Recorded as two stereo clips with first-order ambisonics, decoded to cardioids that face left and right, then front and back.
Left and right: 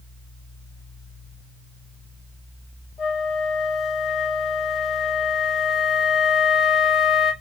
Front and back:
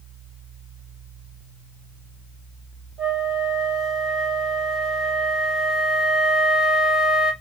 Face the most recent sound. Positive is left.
turn(degrees=140)